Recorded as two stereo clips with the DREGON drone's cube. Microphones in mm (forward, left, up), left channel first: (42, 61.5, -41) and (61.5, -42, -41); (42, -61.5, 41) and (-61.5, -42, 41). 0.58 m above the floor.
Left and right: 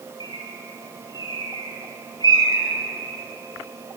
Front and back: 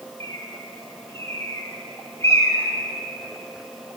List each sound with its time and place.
0.2 s a bird: 50° left, 1.8 m